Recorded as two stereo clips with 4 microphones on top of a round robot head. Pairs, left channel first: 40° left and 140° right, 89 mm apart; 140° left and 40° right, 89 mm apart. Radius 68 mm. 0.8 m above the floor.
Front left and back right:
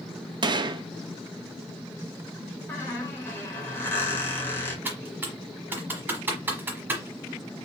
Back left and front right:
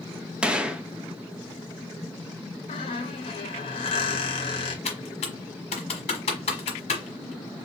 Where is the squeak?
110° left, 1.2 m.